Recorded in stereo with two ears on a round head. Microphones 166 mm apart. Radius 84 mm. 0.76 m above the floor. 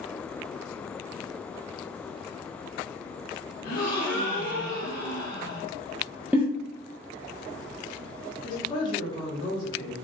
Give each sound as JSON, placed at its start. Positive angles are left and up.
{"t": 3.6, "sound": "a gasp", "side_deg": 50, "distance_m": 0.9}
{"t": 6.3, "sound": "a giggle", "side_deg": -10, "distance_m": 0.5}
{"t": 8.4, "sound": "a woman speaking", "side_deg": 25, "distance_m": 0.9}